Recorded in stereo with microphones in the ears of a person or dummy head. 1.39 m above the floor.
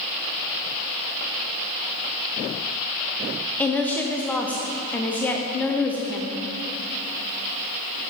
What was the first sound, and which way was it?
A woman speaking, 5° left (ahead or behind).